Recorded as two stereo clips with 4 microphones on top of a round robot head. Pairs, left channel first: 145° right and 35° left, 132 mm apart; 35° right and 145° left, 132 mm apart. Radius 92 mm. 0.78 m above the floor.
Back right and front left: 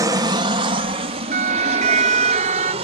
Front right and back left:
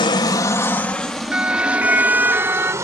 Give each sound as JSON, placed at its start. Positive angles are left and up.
{"t": 0.0, "sound": "an aircraft", "azimuth_deg": -10}
{"t": 1.3, "sound": "a siren", "azimuth_deg": 65}